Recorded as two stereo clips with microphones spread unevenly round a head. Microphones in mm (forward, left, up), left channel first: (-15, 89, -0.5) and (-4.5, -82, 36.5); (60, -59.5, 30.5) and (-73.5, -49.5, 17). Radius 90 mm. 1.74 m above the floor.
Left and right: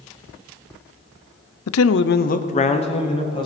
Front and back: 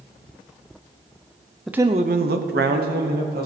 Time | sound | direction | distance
1.7 | a man speaking | 80° left | 0.5 m